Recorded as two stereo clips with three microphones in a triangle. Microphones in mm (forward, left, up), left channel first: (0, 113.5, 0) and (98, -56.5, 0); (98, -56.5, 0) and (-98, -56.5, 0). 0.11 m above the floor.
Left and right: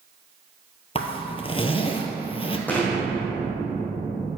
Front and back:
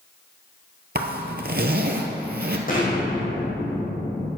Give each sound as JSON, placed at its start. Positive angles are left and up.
{"t": 0.9, "sound": "a zipper", "azimuth_deg": 175, "distance_m": 0.8}
{"t": 2.7, "sound": "an explosion", "azimuth_deg": 40, "distance_m": 2.5}